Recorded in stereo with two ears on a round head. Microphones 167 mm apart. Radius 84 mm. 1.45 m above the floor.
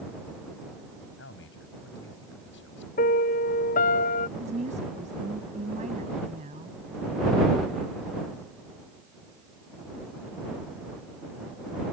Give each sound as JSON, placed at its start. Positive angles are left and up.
{"t": 1.2, "sound": "a man speaking", "side_deg": 75}
{"t": 3.0, "sound": "a piano", "side_deg": 45}
{"t": 4.4, "sound": "a woman speaking", "side_deg": -40}